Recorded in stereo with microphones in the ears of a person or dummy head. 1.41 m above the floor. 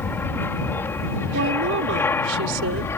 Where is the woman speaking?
65° right (ahead or behind).